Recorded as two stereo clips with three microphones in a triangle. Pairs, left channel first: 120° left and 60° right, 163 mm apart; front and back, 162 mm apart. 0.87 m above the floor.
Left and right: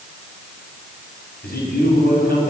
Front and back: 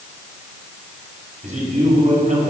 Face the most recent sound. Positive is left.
turn(degrees=140)